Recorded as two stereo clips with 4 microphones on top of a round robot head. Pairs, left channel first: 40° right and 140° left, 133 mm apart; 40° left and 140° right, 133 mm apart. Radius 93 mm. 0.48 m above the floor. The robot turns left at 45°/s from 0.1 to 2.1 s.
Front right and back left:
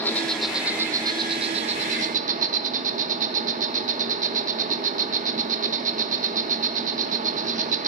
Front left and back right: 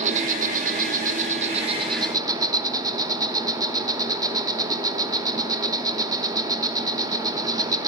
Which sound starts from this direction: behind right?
An insect, at 0.0 s.